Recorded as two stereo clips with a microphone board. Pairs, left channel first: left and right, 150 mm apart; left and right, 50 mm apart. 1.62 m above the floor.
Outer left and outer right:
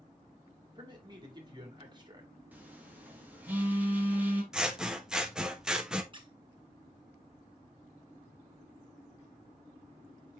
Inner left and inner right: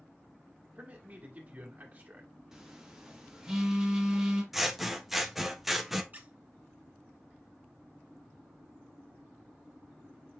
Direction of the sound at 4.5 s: 5° right (ahead or behind).